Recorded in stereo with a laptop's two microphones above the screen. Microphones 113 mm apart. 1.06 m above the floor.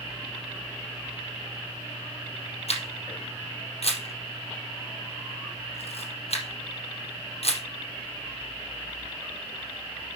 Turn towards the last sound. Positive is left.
turn(degrees=60)  # may be behind; listen again after turning